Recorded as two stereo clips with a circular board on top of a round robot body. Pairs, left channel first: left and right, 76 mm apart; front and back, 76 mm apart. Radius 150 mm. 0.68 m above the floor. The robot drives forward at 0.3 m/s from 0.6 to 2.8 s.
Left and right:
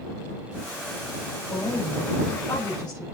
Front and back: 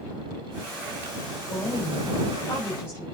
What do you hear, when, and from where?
1.5 s a woman speaking: 55° left, 5 m